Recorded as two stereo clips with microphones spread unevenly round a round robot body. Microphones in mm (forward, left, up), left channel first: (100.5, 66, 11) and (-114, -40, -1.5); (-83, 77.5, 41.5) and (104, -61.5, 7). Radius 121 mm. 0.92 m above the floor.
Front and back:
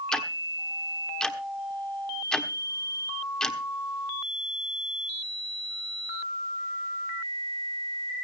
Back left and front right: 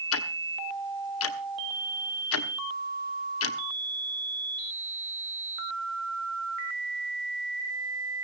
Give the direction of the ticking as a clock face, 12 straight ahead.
8 o'clock.